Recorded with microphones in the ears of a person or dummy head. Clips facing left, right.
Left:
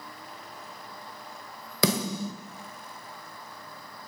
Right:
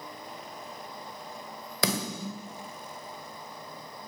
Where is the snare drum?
85° left, 1.6 m.